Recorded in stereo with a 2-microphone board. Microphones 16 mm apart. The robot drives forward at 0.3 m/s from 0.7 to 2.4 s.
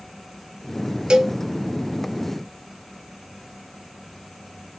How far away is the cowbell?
About 0.5 m.